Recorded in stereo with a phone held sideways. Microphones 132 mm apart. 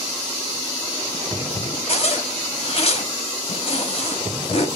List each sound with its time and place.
1.9 s a zipper: 50° left (ahead or behind), 1.9 m